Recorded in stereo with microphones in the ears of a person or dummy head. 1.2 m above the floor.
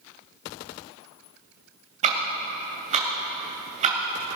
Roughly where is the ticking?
Right.